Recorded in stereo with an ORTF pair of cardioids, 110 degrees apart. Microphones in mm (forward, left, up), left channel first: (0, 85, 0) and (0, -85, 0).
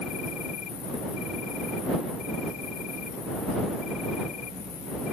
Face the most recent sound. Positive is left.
turn(degrees=55)